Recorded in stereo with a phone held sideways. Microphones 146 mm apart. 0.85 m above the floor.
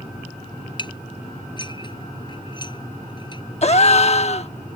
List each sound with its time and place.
0.8 s dishes clattering: 30° left (ahead or behind)
3.6 s a gasp: 45° left (ahead or behind)